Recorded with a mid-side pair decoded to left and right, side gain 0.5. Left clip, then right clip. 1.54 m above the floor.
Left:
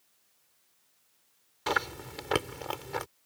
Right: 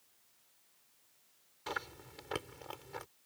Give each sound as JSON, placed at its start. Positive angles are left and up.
{"t": 1.7, "sound": "chewing", "azimuth_deg": 60}